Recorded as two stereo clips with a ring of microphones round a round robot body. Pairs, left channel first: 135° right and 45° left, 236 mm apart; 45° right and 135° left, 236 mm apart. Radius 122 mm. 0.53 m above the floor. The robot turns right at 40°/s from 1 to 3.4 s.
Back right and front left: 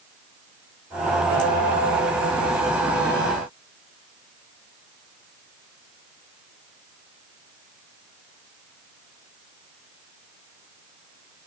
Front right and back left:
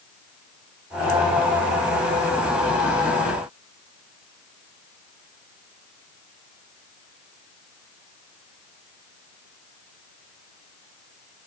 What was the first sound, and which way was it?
Only background noise.